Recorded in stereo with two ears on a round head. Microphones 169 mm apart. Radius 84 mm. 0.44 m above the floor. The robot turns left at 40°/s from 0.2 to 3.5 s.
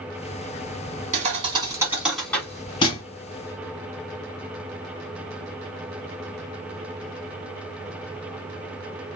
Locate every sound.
1.1 s a thud: 40° right (ahead or behind), 1.2 m; by 3.0 s 35° left (ahead or behind), 1.2 m